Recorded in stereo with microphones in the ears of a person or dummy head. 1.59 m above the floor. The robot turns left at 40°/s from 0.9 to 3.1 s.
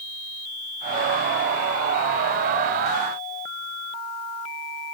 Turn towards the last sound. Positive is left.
No sound to turn to.